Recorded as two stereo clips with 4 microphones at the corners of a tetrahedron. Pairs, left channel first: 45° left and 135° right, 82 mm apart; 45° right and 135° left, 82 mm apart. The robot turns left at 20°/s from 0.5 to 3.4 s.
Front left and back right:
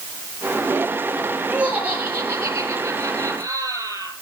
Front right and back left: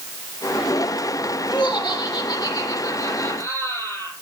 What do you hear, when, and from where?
1.5 s laughter: 60° right, 7.5 m; by 4.1 s 100° right, 7.5 m